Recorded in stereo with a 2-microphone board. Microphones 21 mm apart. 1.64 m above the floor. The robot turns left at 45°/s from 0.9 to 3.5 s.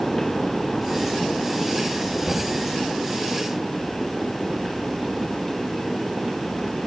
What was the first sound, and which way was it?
Knocking, 75° right (ahead or behind).